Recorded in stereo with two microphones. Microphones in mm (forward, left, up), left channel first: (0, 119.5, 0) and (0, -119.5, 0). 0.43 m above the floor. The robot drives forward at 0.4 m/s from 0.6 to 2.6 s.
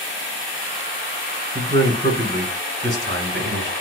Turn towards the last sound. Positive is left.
turn(degrees=-50)  # may be behind; listen again after turning